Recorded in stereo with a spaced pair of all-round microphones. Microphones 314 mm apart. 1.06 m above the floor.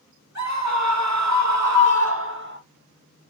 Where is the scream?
50° right (ahead or behind), 1.3 m; by 2.6 s 30° right (ahead or behind), 0.8 m.